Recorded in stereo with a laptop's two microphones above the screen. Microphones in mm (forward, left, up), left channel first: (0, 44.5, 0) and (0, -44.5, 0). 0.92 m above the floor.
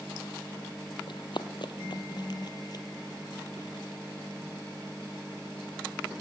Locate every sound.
1.1 s running footsteps: 60° left (ahead or behind), 1.9 m; by 2.9 s 45° left (ahead or behind), 1.4 m